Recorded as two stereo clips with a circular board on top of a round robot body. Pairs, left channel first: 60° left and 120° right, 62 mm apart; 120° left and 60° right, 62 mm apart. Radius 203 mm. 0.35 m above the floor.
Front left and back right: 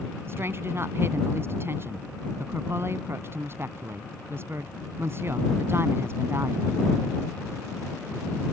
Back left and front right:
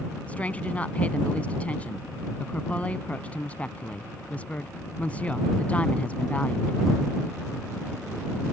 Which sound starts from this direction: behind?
A woman speaking, at 0.3 s.